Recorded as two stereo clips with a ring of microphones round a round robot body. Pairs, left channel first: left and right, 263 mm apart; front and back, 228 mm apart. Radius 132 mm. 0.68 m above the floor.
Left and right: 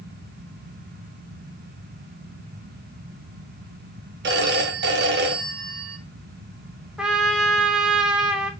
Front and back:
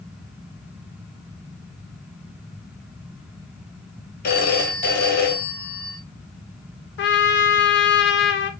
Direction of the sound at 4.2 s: 50° right.